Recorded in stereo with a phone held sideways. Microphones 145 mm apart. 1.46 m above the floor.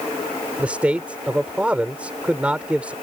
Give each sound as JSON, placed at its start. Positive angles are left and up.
{"t": 0.6, "sound": "a man speaking", "side_deg": -10}